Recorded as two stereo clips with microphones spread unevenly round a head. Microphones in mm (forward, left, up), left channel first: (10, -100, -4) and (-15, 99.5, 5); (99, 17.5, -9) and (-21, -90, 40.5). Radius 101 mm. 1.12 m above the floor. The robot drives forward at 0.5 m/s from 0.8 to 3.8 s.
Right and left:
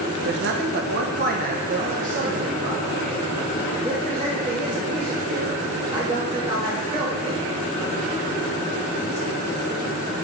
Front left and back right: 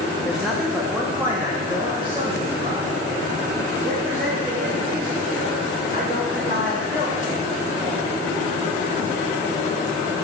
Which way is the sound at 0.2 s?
120° left.